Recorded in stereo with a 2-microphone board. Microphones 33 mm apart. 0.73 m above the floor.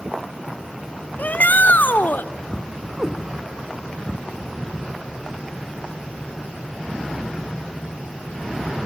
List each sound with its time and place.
1.2 s a shout: 60° left (ahead or behind), 0.9 m; by 2.3 s 75° left (ahead or behind), 1.8 m
3.0 s a cat meowing: 10° right (ahead or behind), 1.6 m